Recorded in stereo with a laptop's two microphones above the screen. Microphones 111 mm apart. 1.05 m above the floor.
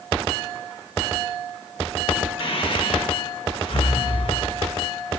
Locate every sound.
2.4 s breathing: 50° left (ahead or behind), 1.4 m